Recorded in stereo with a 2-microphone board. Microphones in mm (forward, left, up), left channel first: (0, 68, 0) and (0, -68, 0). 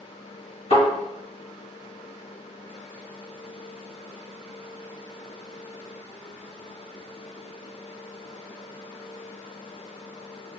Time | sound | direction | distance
0.7 | a thud | 50° left (ahead or behind) | 1.7 m